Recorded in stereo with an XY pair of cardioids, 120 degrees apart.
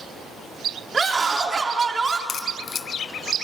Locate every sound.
0.9 s a scream: 25° right, 3.5 m
2.3 s a crack: 45° left, 0.9 m